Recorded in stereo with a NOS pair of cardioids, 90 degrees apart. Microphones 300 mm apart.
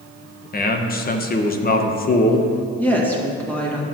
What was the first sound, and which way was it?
A man speaking, 30° left.